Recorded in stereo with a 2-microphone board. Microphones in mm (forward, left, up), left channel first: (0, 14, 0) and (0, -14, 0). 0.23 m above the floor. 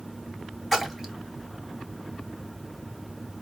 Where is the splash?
10° right (ahead or behind), 1.2 m.